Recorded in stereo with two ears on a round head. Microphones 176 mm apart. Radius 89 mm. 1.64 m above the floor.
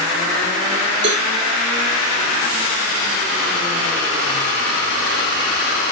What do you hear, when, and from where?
1.0 s a cowbell: 60° right (ahead or behind), 2.5 m